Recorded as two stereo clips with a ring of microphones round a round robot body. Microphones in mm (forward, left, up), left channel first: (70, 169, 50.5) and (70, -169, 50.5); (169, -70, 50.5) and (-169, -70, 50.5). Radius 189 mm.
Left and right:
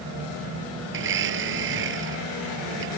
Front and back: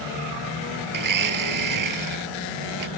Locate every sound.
0.9 s a blender: 150° right